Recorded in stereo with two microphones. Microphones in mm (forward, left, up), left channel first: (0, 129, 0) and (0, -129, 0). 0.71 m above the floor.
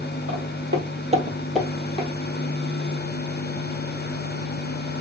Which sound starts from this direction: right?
Footsteps, at 0.3 s.